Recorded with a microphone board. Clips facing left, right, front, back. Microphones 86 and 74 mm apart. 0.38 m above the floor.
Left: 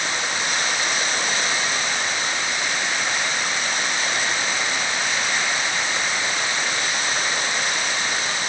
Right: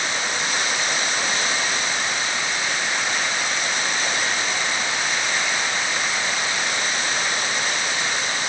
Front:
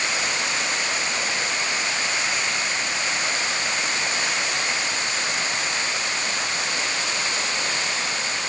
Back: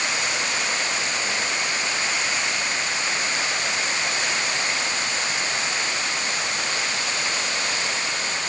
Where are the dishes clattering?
No dishes clattering in this recording.